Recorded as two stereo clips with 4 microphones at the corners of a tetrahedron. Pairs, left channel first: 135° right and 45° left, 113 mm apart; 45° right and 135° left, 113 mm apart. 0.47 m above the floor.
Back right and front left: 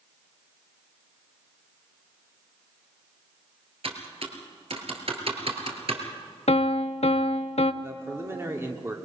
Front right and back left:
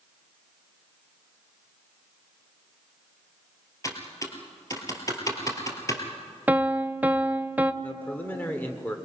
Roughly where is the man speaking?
Ahead.